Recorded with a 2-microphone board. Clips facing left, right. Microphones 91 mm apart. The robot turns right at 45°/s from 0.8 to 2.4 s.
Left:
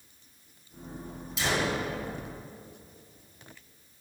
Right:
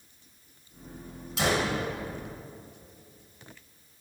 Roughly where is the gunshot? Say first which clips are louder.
Right 2 dB; right.